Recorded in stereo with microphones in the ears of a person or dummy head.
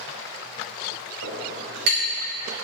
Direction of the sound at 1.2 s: 75° right (ahead or behind).